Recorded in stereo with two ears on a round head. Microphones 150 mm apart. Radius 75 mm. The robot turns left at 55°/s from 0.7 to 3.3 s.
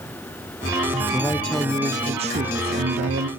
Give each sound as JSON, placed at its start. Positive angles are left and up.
{"t": 1.1, "sound": "a man speaking", "azimuth_deg": 25, "distance_m": 1.0}